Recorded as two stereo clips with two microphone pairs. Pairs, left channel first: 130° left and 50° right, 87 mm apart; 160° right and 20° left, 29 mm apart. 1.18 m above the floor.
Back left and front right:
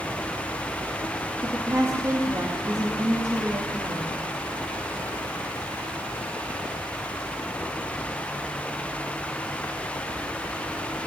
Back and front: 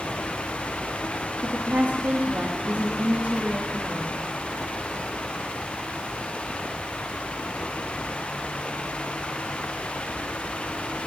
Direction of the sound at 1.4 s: 10° left.